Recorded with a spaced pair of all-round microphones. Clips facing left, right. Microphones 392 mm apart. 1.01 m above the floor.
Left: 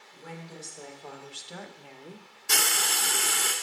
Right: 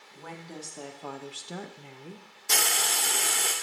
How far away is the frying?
About 0.6 m.